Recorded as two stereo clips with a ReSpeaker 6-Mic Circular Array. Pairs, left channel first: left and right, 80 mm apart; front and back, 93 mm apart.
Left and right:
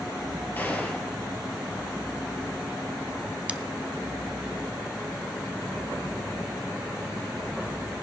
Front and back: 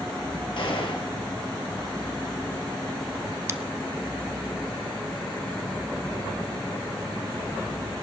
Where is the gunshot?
25° left, 3 m.